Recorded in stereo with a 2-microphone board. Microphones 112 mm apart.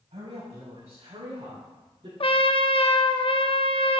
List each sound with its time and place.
0.1 s a woman speaking: 65° right (ahead or behind), 4 m; by 2.1 s 40° right (ahead or behind), 4.5 m
2.2 s a trumpet: 55° left (ahead or behind), 0.6 m